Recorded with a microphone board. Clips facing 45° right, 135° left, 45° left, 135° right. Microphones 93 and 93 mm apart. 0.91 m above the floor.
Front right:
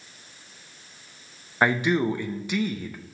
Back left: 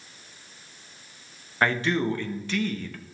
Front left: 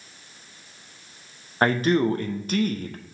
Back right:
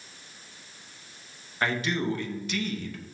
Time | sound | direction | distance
1.6 | a man speaking | 25° left | 0.6 m